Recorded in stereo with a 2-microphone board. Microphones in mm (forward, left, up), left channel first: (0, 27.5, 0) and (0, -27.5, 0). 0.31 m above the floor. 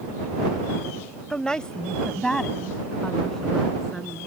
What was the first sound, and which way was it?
A woman speaking, 15° left (ahead or behind).